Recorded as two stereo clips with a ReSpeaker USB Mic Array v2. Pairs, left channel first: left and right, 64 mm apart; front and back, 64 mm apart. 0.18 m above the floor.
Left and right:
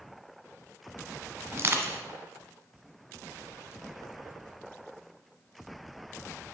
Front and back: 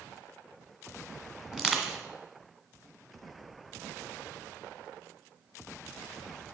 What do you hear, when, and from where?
1.5 s crushing: 105° right, 0.9 m